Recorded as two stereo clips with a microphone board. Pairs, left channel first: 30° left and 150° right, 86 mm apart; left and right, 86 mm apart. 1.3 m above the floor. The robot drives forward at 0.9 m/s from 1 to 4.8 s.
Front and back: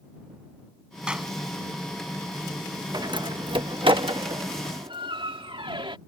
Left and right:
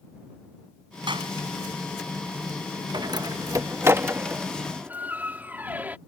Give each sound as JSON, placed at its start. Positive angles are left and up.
{"t": 1.1, "sound": "a clap", "azimuth_deg": -70}
{"t": 2.9, "sound": "a door slam", "azimuth_deg": -115}